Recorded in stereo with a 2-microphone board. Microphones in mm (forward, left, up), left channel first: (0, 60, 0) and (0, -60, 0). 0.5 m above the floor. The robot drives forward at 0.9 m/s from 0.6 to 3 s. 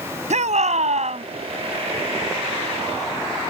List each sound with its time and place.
0.3 s a shout: 75° right (ahead or behind); by 1.3 s 70° right (ahead or behind)